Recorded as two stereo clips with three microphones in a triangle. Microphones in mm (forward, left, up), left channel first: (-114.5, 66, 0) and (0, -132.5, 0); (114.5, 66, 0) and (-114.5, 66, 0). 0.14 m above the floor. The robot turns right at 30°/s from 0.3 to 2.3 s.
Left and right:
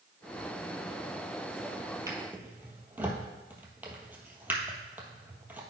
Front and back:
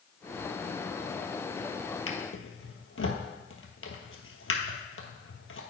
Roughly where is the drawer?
Ahead.